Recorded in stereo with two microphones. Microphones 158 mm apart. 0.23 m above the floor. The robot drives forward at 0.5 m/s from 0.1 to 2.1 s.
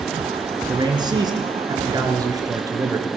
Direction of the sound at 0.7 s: 30° right (ahead or behind).